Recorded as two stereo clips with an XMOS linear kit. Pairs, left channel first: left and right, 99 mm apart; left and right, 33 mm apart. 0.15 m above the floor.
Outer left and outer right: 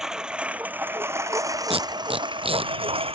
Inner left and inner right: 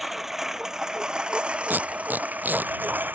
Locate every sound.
0.0 s a lawn mower: 5° right (ahead or behind); by 3.1 s 75° right (ahead or behind)
1.7 s tape being pulled: 75° right (ahead or behind)